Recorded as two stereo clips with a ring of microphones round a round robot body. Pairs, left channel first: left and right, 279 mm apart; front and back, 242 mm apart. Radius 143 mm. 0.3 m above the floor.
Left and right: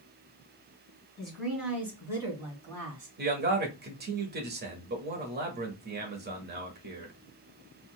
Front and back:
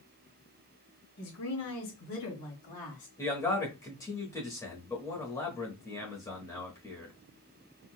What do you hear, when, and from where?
1.2 s a woman speaking: straight ahead, 2.5 m; by 3.1 s 35° right, 1.5 m
3.2 s a man speaking: 70° right, 1.0 m